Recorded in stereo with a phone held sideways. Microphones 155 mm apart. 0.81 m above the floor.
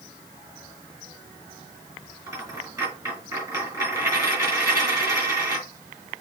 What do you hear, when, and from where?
2.3 s a dropped coin: 25° right (ahead or behind), 2.5 m